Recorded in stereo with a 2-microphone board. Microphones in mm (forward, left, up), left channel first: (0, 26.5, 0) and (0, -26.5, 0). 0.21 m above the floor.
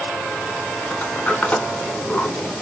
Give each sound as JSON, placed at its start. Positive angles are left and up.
{"t": 0.9, "sound": "a sliding door", "side_deg": 25, "distance_m": 0.6}